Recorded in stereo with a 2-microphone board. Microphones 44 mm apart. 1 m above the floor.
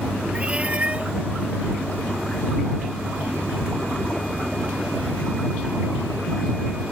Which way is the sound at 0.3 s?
25° right (ahead or behind).